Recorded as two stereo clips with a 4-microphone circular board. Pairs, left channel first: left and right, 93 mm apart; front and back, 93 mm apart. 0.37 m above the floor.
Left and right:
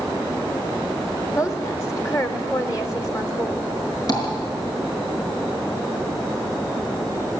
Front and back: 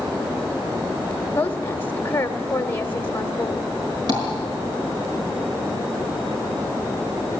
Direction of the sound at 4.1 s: 140° left.